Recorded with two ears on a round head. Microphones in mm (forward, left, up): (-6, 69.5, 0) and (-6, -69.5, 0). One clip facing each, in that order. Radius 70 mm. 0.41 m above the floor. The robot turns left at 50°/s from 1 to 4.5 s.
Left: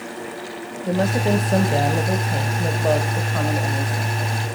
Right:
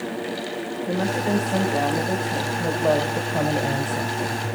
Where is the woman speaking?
90° left, 1.3 m; by 4.4 s 80° right, 1.3 m.